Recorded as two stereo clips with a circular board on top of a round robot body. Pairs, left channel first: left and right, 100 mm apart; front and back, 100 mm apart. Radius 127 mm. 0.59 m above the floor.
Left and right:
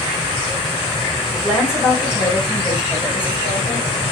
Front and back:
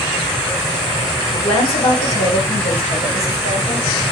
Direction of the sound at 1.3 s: 5° right.